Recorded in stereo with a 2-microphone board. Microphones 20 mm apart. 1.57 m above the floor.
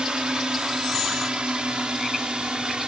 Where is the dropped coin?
I don't hear a dropped coin.